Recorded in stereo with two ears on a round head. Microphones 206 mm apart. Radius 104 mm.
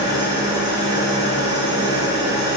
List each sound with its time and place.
0.0 s an engine running: 45° left (ahead or behind), 5.5 m